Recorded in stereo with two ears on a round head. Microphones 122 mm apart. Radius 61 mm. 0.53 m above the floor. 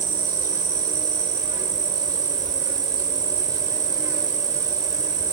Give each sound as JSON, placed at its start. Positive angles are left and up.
{"t": 0.0, "sound": "an insect", "side_deg": -25, "distance_m": 1.2}